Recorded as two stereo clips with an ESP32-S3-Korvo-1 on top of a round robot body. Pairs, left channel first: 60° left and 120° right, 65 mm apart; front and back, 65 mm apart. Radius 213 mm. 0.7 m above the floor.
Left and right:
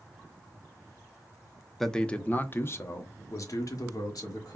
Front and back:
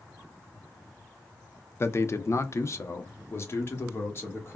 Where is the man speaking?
25° right, 0.9 m; by 4.5 s 50° left, 1.8 m.